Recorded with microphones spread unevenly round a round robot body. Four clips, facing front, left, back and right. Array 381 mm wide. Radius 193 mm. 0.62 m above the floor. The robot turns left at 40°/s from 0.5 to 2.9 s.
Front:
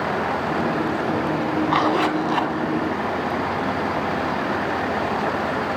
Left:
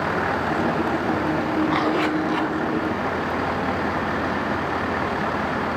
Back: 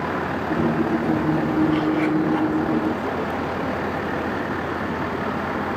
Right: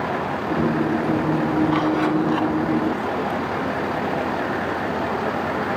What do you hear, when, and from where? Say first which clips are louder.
1.7 s a zipper: right 2 dB, even; 30° left, 5.5 m; by 2.5 s straight ahead, 5.5 m